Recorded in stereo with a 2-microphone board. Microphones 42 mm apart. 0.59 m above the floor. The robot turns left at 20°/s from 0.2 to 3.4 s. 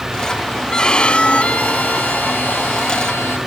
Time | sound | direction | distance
0.7 | a violin | 160° left | ?